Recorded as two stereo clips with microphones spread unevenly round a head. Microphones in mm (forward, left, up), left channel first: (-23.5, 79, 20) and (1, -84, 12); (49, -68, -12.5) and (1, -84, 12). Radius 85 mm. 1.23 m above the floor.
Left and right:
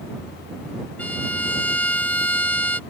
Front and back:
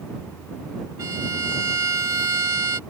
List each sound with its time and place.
1.0 s a violin: straight behind